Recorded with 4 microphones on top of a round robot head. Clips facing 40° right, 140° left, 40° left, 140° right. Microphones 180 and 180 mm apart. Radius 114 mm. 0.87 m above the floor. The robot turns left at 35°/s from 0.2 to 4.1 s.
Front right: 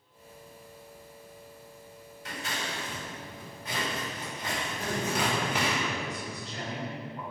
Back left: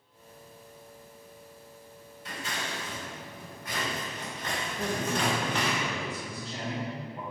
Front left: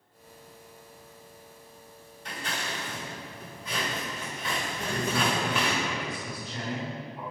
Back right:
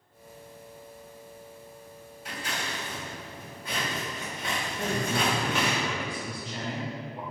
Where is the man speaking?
175° left, 1.0 m.